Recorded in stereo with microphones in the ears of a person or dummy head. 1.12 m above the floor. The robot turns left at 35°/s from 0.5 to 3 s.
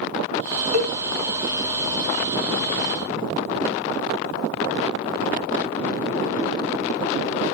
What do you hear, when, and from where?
0.7 s a cowbell: 45° right (ahead or behind), 0.6 m